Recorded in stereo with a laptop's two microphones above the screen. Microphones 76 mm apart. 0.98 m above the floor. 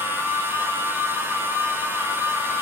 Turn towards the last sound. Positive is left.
turn(degrees=-30)  # may be behind; listen again after turning